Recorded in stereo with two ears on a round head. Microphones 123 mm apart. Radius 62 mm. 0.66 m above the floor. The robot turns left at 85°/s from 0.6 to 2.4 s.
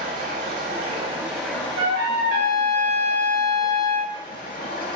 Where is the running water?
110° right, 0.9 m; by 5.0 s 95° left, 0.9 m.